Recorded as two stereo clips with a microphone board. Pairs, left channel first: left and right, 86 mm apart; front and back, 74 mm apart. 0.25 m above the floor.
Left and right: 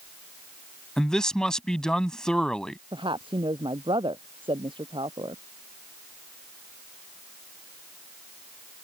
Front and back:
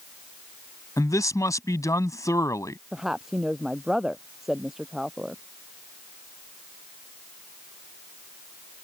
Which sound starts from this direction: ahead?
A man speaking, at 1.0 s.